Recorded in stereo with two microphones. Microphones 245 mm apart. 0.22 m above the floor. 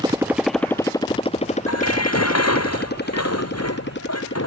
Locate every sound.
0.0 s a motorcycle: 20° right (ahead or behind); by 4.5 s 50° left (ahead or behind)
1.7 s dishes clattering: 85° left